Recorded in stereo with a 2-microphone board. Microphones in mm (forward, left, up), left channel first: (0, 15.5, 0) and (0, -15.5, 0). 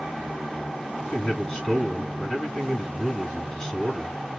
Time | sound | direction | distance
1.0 | a man speaking | 5° left (ahead or behind) | 1.7 m